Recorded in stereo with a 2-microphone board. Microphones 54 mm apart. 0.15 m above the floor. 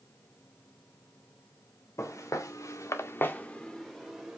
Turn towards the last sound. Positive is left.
turn(degrees=-15)  # may be behind; listen again after turning